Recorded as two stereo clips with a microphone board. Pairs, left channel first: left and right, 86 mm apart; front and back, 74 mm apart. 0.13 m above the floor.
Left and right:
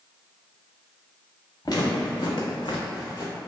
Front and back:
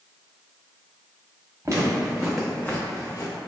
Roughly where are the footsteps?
Behind left.